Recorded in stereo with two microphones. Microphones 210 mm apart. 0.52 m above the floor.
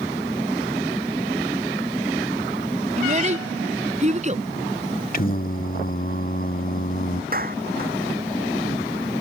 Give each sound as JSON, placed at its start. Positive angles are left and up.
{"t": 3.0, "sound": "a child speaking", "side_deg": -35}
{"t": 5.1, "sound": "singing", "side_deg": 40}
{"t": 7.3, "sound": "a clap", "side_deg": -40}